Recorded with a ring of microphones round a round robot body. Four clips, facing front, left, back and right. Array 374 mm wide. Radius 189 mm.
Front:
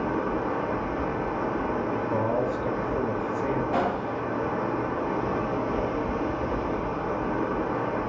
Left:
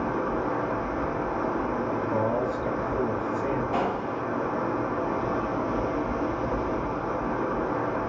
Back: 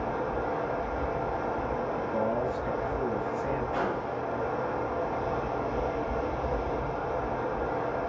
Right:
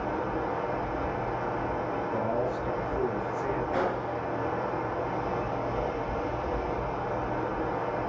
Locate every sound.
0.0 s running water: 50° left, 6 m
1.9 s a man speaking: 30° left, 8 m
3.7 s a gunshot: 30° left, 8 m